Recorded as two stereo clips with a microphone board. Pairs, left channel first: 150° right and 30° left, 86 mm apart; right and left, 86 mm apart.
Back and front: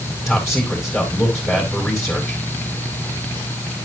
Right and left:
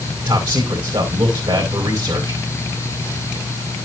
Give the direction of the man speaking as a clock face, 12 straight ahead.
8 o'clock.